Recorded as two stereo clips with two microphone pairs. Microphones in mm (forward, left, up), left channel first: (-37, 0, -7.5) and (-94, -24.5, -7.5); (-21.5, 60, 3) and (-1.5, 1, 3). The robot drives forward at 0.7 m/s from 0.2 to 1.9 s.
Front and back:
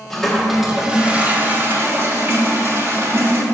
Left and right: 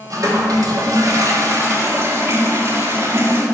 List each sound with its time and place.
0.1 s a toilet flushing: 60° right, 1.5 m; by 3.4 s 115° right, 1.4 m